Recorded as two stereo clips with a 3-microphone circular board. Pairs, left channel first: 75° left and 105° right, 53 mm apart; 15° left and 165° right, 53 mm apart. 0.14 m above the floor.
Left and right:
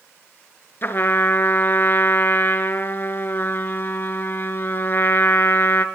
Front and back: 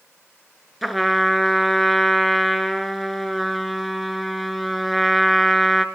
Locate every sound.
0.8 s a trumpet: 105° left, 0.7 m